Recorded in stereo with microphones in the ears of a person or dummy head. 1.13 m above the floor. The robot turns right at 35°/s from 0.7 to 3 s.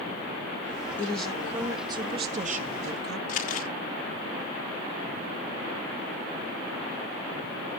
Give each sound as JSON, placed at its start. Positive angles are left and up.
{"t": 1.0, "sound": "a woman speaking", "azimuth_deg": 170, "distance_m": 1.8}
{"t": 3.3, "sound": "crumpling", "side_deg": 50, "distance_m": 1.4}